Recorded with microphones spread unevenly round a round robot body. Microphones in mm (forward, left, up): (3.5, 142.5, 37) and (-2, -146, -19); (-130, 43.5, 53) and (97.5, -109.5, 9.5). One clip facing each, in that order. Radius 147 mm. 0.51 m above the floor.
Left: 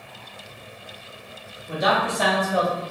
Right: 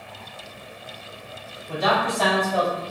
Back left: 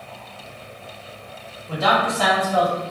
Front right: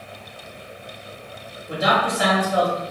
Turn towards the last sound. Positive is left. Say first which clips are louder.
# even, even
turn(degrees=0)